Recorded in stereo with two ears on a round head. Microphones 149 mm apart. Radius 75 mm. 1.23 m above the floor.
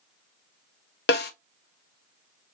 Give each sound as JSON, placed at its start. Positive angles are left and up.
{"t": 1.1, "sound": "a snare drum", "side_deg": 65, "distance_m": 0.7}